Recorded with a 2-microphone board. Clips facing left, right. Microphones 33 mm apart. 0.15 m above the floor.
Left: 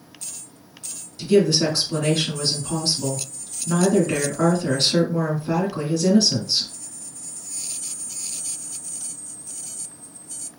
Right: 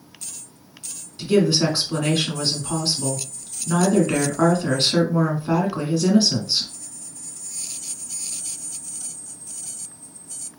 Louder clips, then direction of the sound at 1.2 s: Left 1 dB; 25° right (ahead or behind).